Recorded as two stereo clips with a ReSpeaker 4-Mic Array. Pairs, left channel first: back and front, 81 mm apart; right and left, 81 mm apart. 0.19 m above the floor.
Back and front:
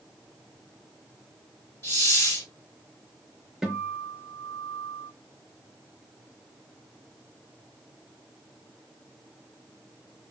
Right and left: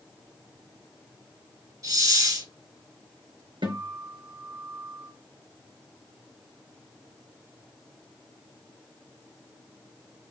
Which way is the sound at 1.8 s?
125° left.